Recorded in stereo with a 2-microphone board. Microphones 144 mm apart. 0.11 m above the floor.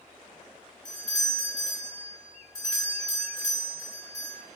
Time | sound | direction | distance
0.8 | a doorbell | 25° left (ahead or behind) | 1.8 m